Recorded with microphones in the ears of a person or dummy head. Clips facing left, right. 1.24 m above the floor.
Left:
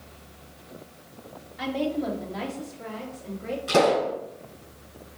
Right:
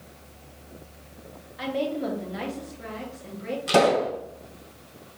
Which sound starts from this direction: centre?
A woman speaking, at 1.6 s.